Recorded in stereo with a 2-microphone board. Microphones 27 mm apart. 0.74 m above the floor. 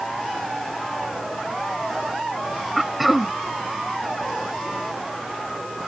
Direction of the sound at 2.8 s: 5° right (ahead or behind).